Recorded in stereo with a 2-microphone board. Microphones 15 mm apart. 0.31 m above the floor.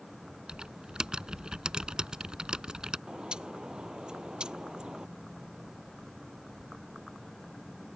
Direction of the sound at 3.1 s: 60° right (ahead or behind).